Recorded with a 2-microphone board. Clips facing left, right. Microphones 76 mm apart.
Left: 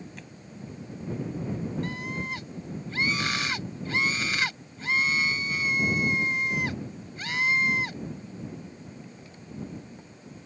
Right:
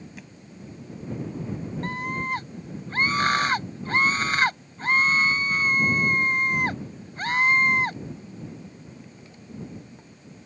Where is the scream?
45° right (ahead or behind).